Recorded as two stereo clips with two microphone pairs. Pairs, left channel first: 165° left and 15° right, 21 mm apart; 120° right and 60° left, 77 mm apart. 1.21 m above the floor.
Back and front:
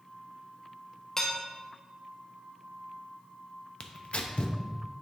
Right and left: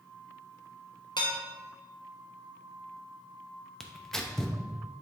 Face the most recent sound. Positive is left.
turn(degrees=160)